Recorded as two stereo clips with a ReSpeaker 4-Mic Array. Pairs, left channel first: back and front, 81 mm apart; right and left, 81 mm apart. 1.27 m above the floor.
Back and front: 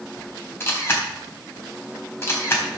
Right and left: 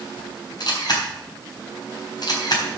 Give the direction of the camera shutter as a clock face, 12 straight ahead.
4 o'clock.